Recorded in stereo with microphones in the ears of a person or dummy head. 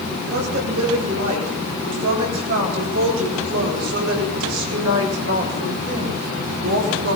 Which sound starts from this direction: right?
A woman speaking, at 0.2 s.